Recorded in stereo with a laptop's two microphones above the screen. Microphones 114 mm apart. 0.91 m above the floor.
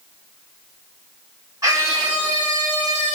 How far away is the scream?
About 5 m.